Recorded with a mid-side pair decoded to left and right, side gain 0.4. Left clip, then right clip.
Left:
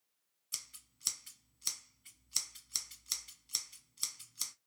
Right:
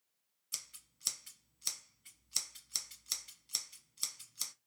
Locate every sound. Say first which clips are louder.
0.5 s scissors: even; 5° right, 1.0 m